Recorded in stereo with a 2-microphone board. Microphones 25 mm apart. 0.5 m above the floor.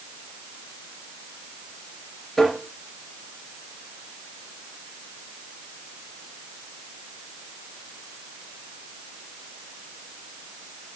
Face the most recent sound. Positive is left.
turn(degrees=5)  # may be behind; listen again after turning